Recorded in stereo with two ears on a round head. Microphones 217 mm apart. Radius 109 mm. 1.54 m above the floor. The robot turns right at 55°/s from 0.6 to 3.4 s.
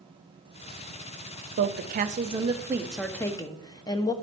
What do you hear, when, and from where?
1.6 s a woman speaking: 75° right, 0.5 m; by 4.1 s 25° left, 0.5 m